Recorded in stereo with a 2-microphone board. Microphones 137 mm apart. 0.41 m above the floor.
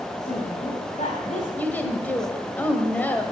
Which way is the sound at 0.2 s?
65° left (ahead or behind).